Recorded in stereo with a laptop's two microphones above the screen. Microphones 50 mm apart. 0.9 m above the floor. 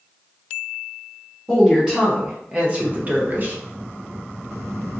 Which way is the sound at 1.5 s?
10° right (ahead or behind).